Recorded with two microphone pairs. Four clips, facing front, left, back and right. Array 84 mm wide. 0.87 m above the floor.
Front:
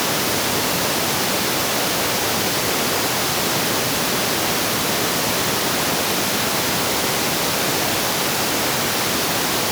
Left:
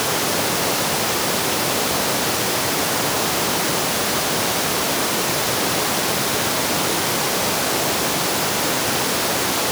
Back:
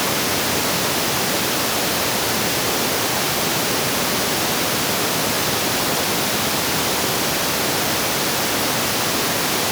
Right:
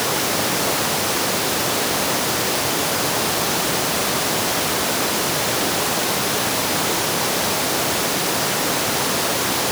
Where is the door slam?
No door slam in this recording.